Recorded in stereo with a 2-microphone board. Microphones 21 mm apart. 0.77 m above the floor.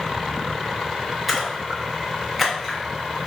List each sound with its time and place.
1.3 s a splash: 5° right (ahead or behind), 0.7 m